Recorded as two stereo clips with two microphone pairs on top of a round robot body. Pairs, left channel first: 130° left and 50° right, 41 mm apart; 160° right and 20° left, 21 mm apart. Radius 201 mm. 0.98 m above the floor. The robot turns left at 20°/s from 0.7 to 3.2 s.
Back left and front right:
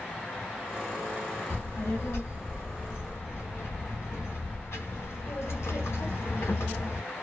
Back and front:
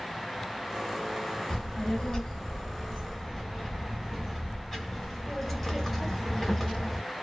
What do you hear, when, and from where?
1.5 s a child speaking: 145° left, 1.3 m; by 7.0 s 115° left, 1.3 m